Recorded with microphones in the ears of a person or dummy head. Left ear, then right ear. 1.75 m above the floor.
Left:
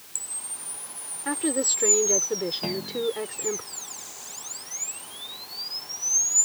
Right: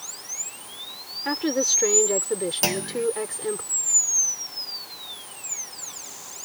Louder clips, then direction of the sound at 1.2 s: Right 3 dB; 10° right (ahead or behind).